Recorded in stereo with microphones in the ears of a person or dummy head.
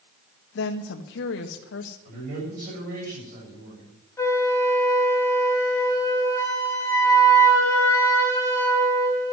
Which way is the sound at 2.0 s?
55° right (ahead or behind).